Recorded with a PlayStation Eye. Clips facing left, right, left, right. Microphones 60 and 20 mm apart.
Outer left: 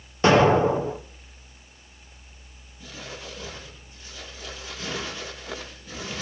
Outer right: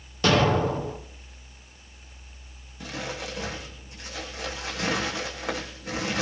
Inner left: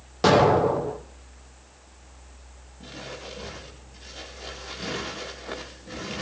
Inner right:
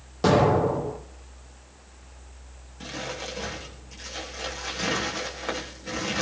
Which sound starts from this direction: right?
Crumpling, at 2.8 s.